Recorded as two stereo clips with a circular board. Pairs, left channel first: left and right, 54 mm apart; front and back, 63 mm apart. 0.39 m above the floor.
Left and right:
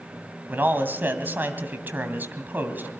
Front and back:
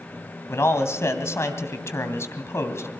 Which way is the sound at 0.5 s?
40° right.